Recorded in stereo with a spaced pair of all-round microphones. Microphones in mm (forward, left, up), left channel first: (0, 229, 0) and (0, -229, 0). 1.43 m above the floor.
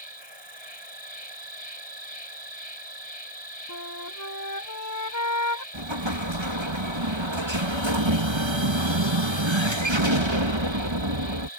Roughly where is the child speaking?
I don't hear a child speaking.